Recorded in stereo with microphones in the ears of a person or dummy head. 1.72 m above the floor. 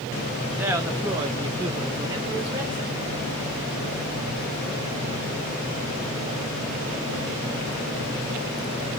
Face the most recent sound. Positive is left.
turn(degrees=-10)  # may be behind; listen again after turning